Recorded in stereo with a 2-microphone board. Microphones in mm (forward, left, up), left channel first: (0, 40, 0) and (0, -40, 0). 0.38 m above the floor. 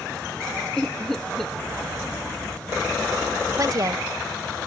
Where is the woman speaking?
50° right (ahead or behind).